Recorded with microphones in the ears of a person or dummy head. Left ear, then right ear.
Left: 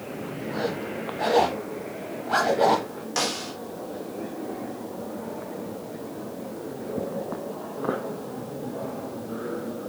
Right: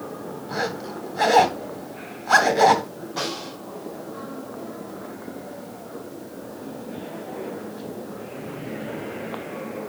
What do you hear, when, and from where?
0.5 s a zipper: 60° right (ahead or behind), 1.7 m
3.2 s a snare drum: 70° left (ahead or behind), 3 m